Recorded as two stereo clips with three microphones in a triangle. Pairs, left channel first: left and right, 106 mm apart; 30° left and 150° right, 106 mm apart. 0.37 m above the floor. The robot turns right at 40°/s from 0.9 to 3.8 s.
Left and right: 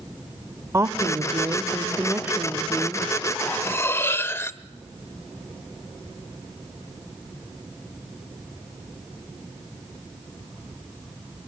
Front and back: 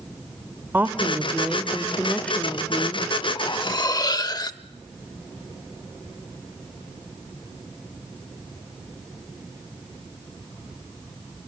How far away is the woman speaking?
About 1.1 m.